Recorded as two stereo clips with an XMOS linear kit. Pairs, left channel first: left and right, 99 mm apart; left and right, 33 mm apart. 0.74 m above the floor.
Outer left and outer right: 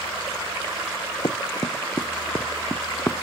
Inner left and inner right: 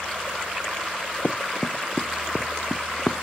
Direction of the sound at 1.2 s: 50° left (ahead or behind).